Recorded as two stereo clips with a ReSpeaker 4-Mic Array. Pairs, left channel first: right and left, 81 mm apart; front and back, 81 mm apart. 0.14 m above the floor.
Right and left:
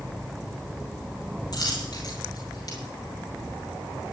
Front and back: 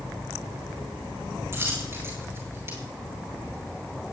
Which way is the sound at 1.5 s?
120° right.